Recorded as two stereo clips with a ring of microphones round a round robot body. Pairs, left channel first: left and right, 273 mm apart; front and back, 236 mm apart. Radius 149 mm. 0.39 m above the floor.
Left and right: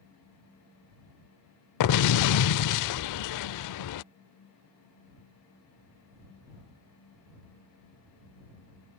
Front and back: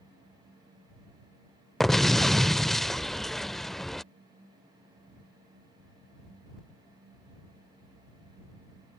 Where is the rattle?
I don't hear a rattle.